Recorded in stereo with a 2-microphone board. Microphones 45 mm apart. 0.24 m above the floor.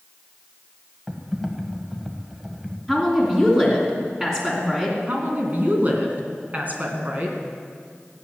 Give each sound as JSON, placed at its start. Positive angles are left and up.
{"t": 1.1, "sound": "typing on a keyboard", "side_deg": -10, "distance_m": 1.4}
{"t": 2.9, "sound": "a woman speaking", "side_deg": -20, "distance_m": 3.0}
{"t": 5.1, "sound": "a woman speaking", "side_deg": -40, "distance_m": 2.5}